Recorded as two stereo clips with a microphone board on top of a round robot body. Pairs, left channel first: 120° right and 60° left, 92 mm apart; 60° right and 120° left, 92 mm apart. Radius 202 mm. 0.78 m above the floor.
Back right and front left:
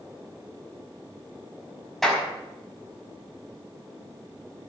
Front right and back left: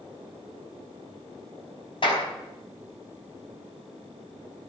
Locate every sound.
2.0 s a clap: 30° right, 5 m